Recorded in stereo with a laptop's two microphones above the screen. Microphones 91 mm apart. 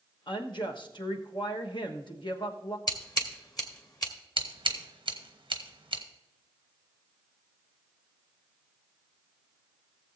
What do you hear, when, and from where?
0.3 s a woman speaking: 60° left (ahead or behind), 1.2 m
2.9 s scissors: 50° left (ahead or behind), 1.8 m
4.4 s scissors: 65° right (ahead or behind), 1.1 m